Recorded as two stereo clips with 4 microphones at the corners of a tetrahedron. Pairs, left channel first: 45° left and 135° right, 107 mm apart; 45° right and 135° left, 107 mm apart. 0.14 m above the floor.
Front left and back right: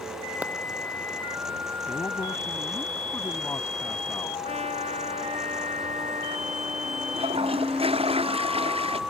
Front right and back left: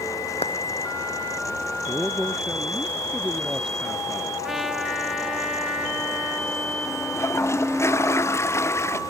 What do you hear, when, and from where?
0.4 s a clap: 60° right
1.9 s a man speaking: 45° left
4.4 s a trumpet: 135° right
7.1 s a toilet flushing: 110° right